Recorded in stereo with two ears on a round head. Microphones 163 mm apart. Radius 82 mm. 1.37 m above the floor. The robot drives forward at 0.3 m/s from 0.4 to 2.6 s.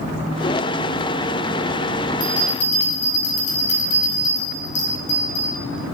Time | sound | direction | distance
2.2 | a bell | 70° left (ahead or behind) | 1.0 m